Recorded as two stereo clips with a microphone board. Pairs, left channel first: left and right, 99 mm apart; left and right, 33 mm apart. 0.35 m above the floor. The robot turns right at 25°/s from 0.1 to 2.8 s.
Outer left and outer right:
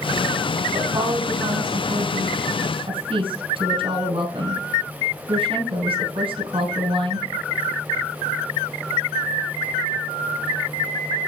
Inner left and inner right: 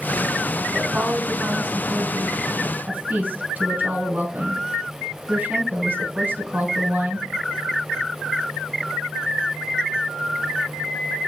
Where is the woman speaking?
125° right, 3 m; by 7.3 s 70° right, 3 m.